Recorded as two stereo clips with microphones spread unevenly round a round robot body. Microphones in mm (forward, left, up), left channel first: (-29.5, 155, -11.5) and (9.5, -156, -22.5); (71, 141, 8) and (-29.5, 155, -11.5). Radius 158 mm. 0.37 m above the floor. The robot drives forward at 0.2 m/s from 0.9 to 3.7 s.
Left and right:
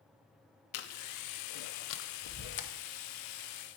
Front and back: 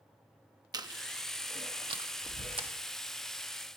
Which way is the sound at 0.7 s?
135° left.